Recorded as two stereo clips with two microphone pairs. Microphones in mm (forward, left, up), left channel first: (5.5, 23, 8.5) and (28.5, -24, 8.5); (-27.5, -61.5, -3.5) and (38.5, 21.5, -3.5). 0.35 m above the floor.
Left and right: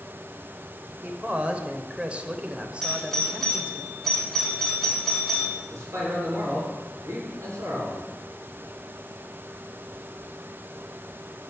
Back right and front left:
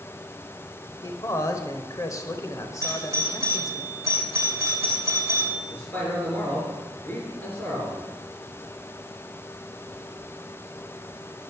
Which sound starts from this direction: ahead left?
A doorbell, at 2.8 s.